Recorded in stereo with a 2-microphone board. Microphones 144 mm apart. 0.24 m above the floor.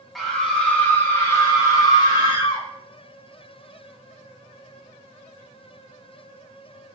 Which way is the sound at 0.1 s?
Centre (ahead or behind).